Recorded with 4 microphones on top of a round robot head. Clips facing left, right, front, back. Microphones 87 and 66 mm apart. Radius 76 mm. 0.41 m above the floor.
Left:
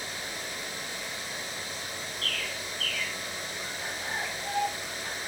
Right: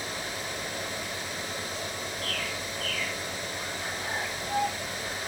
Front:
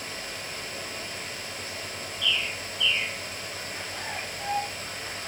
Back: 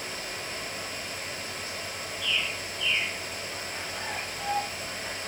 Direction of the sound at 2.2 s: 135° left.